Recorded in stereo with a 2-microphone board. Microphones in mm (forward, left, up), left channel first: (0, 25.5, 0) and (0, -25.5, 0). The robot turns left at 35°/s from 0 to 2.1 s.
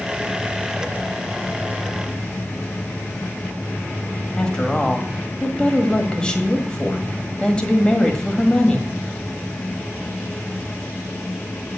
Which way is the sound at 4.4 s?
20° left (ahead or behind).